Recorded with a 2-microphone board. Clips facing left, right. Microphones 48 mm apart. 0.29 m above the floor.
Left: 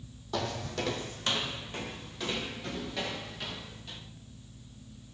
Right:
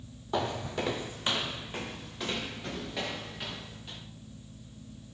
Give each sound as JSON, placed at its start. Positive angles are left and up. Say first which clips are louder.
{"t": 0.3, "sound": "footsteps", "louder": "right 2 dB", "side_deg": -20, "distance_m": 0.7}